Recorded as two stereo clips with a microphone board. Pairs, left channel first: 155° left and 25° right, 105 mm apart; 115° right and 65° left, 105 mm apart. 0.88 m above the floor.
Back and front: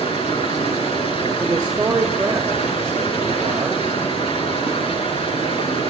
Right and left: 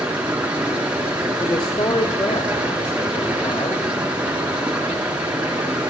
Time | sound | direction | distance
0.0 | running water | 145° left | 5.5 m
1.4 | a man speaking | 85° right | 1.9 m